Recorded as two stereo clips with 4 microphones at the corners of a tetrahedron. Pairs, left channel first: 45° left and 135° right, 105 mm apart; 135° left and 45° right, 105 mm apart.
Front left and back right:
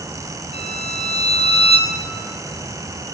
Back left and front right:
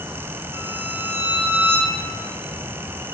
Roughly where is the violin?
Ahead left.